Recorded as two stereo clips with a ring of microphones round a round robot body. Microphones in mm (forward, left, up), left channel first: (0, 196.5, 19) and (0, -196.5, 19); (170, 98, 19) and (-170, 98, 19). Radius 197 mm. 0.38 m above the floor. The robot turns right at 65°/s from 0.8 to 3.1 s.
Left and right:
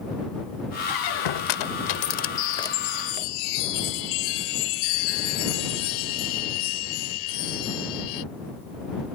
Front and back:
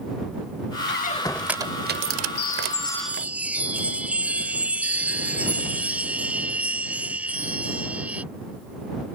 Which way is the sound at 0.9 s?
55° left.